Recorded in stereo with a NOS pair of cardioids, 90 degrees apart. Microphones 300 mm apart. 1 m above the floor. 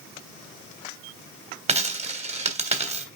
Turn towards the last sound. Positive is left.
turn(degrees=-20)